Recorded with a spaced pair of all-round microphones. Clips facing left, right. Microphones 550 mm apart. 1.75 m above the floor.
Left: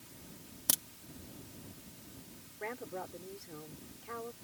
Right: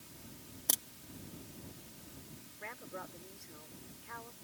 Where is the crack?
35° left (ahead or behind).